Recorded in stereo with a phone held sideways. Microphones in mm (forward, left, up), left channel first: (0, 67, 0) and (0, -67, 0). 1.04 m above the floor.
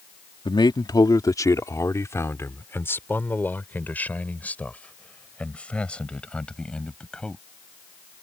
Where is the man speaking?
35° left (ahead or behind); by 7.4 s 5° left (ahead or behind).